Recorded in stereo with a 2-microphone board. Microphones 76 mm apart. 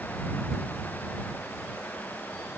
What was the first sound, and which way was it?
Only background noise.